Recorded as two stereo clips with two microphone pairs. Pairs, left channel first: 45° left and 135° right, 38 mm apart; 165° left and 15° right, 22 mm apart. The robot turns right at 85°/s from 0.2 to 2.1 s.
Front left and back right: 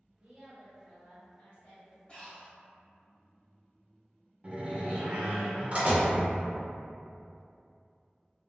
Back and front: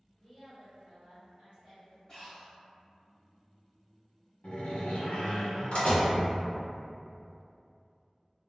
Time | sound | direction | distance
0.2 | a woman speaking | 90° right | 1.2 m
2.1 | breathing | 105° left | 1.2 m
4.4 | a door slam | 175° left | 1.0 m